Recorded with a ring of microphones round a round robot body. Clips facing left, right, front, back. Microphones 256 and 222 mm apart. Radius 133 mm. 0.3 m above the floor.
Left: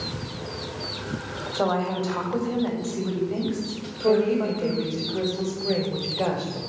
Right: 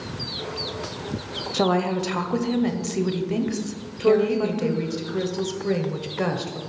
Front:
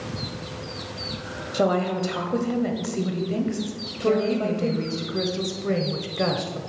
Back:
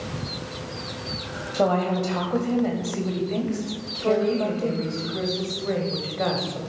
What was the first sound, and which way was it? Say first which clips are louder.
A woman speaking: right 3 dB, even; 70° right.